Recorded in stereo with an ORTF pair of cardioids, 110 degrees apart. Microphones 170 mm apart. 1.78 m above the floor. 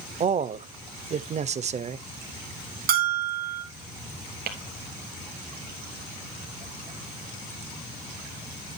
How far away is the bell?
About 2.5 m.